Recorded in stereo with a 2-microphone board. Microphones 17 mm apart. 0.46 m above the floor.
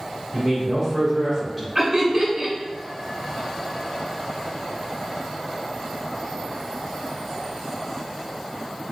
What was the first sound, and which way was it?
A man speaking, centre (ahead or behind).